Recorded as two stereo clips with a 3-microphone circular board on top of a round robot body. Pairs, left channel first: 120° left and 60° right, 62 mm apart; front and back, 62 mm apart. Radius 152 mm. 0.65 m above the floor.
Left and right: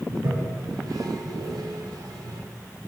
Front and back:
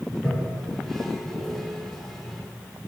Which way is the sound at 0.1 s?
85° right.